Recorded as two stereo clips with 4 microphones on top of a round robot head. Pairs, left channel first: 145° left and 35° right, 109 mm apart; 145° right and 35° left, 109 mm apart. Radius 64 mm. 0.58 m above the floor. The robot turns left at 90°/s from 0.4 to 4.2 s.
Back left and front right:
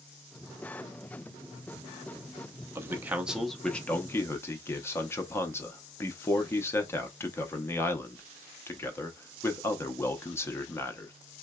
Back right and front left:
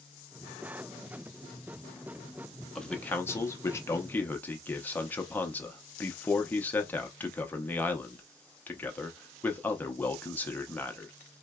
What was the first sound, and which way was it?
A man speaking, 65° right.